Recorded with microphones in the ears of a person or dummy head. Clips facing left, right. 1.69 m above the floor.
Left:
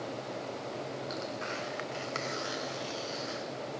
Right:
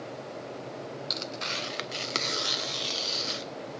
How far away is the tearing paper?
About 1.0 m.